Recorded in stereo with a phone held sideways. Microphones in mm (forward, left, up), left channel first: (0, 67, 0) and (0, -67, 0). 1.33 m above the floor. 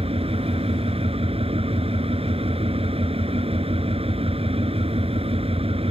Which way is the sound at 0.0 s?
45° right (ahead or behind).